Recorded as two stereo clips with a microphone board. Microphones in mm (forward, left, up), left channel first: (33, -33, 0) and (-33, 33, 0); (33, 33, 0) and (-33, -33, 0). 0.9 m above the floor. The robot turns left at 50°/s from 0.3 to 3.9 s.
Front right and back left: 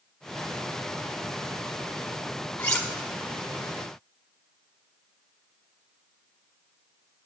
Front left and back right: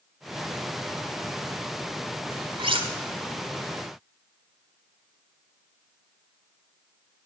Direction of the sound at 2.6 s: 120° right.